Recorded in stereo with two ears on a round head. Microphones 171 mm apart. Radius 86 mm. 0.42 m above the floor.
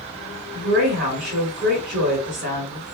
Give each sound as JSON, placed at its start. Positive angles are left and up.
{"t": 0.5, "sound": "a woman speaking", "side_deg": -35, "distance_m": 1.8}